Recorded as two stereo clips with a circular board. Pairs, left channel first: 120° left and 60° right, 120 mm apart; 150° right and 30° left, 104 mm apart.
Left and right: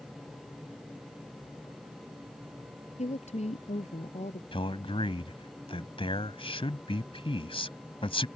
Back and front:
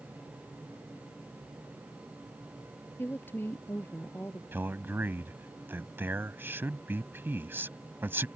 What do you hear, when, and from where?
3.0 s a woman speaking: 140° left
4.5 s a man speaking: 95° left